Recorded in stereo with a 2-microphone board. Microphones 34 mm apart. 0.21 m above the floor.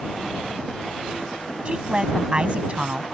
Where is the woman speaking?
30° right (ahead or behind).